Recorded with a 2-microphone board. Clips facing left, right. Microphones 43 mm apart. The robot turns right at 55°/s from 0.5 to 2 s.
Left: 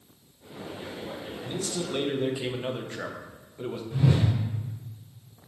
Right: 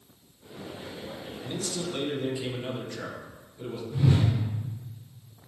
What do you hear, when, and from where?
1.4 s a man speaking: 5° right, 0.6 m; by 3.8 s 30° left, 0.6 m
3.9 s a whoosh: 60° left (ahead or behind), 1.9 m